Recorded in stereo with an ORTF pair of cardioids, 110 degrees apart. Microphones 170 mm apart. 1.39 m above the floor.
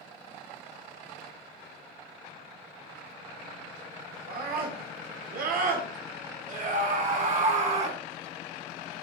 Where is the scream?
65° right, 4.5 m; by 8.0 s 40° right, 4.5 m.